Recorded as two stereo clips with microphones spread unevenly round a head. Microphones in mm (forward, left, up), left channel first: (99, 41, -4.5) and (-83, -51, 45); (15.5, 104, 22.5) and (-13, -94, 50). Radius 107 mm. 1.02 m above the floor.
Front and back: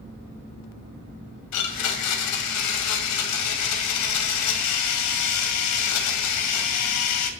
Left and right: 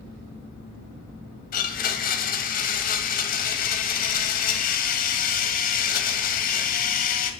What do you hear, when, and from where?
1.5 s a blender: 30° left, 1.9 m